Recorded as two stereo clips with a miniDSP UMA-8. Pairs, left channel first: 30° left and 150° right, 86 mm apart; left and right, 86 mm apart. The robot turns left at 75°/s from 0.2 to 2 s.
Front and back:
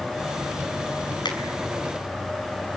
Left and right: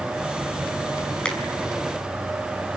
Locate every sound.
1.2 s a finger snap: 10° left, 5.5 m; by 1.4 s 5° left, 5.5 m